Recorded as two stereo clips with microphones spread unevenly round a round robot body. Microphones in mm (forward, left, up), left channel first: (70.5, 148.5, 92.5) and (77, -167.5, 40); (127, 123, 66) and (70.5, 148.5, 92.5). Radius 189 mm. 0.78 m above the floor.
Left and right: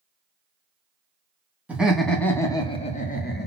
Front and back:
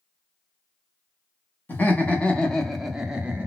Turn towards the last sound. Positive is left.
turn(degrees=65)